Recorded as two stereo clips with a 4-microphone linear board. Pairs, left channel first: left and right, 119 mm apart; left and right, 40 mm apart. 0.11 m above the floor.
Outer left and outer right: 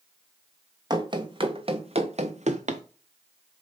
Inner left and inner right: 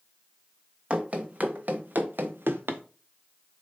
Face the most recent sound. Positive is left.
turn(degrees=-85)